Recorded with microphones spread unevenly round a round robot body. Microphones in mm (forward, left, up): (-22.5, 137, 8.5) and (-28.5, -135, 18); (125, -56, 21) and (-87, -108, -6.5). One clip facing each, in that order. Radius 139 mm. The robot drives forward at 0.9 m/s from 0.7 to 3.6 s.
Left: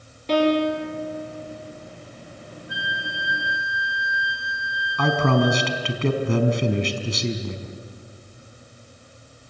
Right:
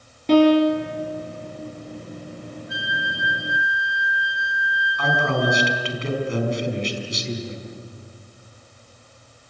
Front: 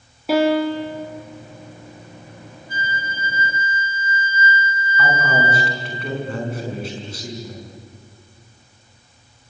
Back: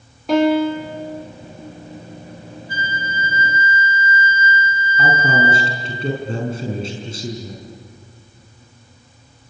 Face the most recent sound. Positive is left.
turn(degrees=125)